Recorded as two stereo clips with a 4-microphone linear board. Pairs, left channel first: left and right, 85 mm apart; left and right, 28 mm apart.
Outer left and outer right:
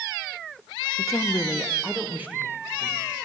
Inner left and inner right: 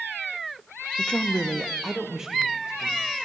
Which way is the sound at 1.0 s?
50° left (ahead or behind).